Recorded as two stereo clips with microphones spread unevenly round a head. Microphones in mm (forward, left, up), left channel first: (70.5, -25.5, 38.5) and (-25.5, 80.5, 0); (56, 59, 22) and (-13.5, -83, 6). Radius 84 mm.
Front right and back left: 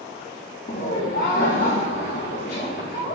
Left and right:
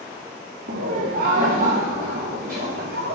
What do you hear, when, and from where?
0.7 s laughter: 90° right, 1.4 m